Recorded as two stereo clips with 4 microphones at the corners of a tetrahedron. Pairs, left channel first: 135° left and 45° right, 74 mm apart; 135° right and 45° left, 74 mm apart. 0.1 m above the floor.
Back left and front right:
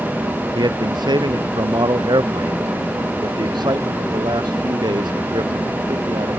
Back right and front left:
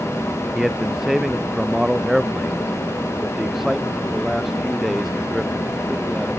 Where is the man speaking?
40° right.